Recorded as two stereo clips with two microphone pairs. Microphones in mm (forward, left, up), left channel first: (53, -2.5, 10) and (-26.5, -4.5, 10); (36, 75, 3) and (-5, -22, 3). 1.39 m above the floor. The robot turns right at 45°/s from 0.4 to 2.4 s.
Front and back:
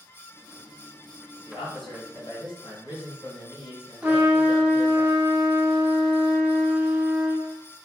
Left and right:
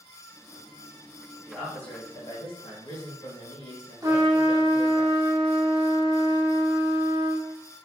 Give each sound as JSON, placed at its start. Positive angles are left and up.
{"t": 1.5, "sound": "a man speaking", "azimuth_deg": -15, "distance_m": 2.0}
{"t": 4.0, "sound": "a trumpet", "azimuth_deg": -115, "distance_m": 0.9}